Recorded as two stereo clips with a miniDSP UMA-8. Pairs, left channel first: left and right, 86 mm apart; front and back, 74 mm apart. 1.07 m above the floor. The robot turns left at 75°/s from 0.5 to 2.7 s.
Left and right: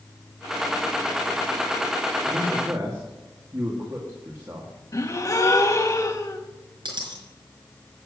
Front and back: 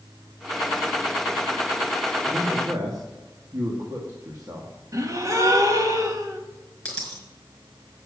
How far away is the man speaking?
About 2 m.